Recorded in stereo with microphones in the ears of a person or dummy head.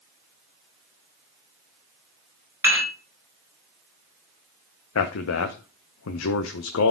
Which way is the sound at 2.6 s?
10° right (ahead or behind).